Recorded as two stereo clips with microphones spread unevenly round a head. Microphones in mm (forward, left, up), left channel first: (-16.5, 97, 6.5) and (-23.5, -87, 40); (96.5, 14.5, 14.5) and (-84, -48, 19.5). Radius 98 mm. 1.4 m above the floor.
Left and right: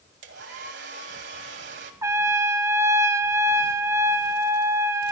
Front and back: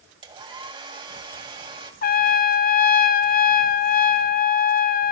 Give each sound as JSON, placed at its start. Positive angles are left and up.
{"t": 0.2, "sound": "a hair dryer", "azimuth_deg": -100, "distance_m": 2.5}
{"t": 2.0, "sound": "a trumpet", "azimuth_deg": -25, "distance_m": 0.8}